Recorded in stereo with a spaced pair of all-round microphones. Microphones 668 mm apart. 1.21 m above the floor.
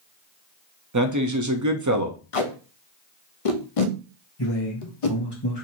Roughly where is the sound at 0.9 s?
Right.